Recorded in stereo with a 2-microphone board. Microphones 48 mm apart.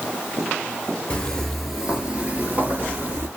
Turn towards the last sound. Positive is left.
turn(degrees=-50)  # may be behind; listen again after turning